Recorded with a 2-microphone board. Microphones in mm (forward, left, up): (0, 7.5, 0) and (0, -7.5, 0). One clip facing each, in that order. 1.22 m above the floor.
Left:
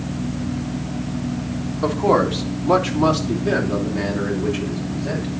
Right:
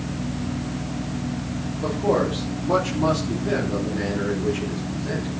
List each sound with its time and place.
1.8 s a man speaking: 40° left (ahead or behind), 2.5 m; by 5.3 s 20° left (ahead or behind), 7 m